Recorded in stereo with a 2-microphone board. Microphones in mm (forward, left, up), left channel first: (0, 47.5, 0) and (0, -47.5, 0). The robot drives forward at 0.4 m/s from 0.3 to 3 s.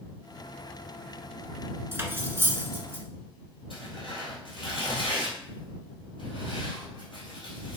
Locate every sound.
1.9 s cutlery clinking: 25° right (ahead or behind), 0.7 m; by 3.0 s 20° right (ahead or behind), 0.8 m
3.7 s tearing paper: 65° left (ahead or behind), 2 m